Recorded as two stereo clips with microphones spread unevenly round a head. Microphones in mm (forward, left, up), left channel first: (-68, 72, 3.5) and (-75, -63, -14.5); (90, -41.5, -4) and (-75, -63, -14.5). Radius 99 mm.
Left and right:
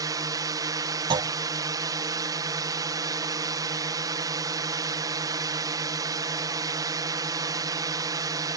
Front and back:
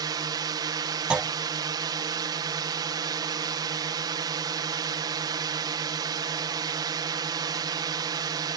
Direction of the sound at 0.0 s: 125° right.